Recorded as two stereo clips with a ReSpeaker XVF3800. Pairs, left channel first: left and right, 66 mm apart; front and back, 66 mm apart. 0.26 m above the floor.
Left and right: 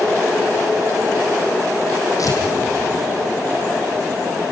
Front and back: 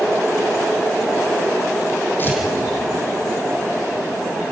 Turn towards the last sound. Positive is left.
turn(degrees=55)